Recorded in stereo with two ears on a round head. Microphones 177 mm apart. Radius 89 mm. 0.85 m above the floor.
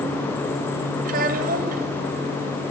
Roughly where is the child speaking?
Right.